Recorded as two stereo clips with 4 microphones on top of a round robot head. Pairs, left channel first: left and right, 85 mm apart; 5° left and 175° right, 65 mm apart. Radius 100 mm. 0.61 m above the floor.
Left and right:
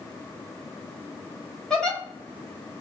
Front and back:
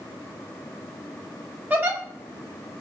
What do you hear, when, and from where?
1.7 s a giggle: 160° left, 1.1 m